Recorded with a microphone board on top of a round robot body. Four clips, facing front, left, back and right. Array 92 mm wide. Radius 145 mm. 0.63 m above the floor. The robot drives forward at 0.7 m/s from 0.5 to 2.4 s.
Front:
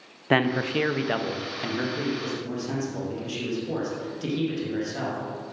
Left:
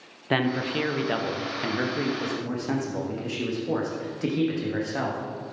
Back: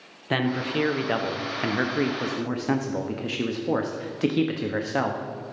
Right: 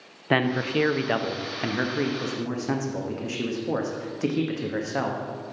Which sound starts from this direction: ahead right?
A man speaking, at 0.3 s.